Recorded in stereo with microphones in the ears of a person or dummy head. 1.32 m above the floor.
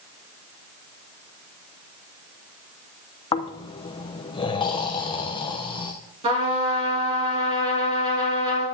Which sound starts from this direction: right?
A trumpet, at 6.2 s.